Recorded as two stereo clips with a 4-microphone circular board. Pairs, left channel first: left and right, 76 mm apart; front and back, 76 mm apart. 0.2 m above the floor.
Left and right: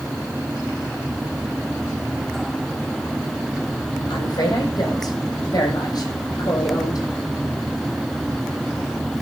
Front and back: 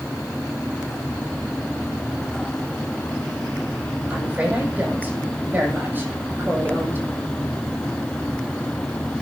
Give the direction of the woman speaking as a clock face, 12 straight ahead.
8 o'clock.